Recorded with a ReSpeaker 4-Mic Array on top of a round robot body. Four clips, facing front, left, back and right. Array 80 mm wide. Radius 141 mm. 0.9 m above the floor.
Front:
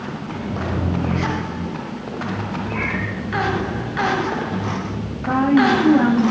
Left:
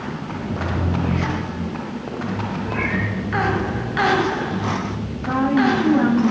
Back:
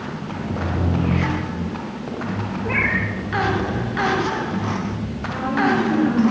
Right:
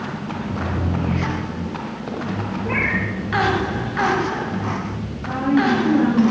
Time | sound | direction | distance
2.6 | a cat meowing | 145° right | 6 m
5.3 | a woman speaking | 15° left | 7 m